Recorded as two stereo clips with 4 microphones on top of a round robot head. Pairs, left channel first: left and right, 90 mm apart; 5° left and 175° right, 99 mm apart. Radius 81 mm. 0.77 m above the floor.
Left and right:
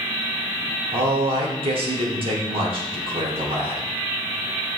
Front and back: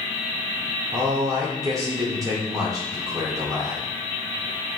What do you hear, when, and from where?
0.9 s a man speaking: 115° right, 2.5 m